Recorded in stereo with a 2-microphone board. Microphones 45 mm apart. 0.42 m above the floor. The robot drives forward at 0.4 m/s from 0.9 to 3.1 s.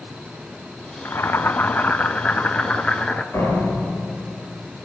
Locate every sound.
1.1 s boiling: 60° left (ahead or behind), 0.5 m; by 3.2 s 25° left (ahead or behind), 1.1 m
3.3 s a door slam: 65° left (ahead or behind), 4.5 m